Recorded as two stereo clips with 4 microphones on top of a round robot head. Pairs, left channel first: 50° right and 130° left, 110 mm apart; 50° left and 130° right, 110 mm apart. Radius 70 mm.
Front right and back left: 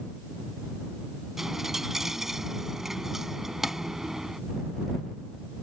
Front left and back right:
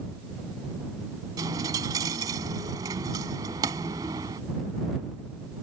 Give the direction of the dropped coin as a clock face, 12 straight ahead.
5 o'clock.